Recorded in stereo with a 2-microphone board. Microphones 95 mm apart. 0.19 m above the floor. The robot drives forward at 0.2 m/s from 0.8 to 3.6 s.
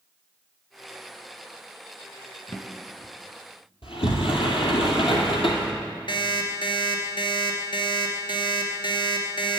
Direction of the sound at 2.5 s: 35° left (ahead or behind).